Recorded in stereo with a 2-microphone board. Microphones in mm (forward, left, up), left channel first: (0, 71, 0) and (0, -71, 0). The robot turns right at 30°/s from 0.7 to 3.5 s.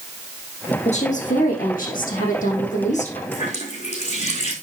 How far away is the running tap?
About 4.5 m.